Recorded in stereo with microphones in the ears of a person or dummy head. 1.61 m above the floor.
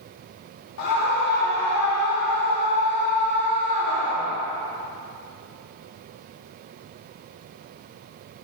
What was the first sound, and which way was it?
A scream, 65° left (ahead or behind).